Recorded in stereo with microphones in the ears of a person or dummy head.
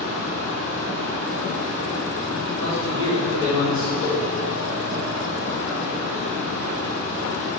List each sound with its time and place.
0.0 s a fan: 60° right (ahead or behind), 0.8 m
2.6 s a man speaking: 65° right (ahead or behind), 2 m
4.0 s a whoosh: 55° left (ahead or behind), 1.2 m